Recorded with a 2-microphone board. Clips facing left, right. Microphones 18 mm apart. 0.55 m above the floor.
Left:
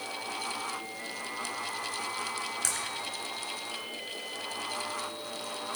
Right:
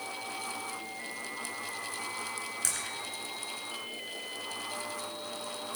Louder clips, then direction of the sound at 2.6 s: Even; 5° left (ahead or behind).